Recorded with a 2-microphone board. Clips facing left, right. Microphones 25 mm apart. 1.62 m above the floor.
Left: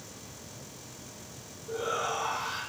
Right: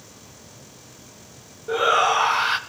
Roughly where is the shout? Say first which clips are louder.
Right 13 dB; right.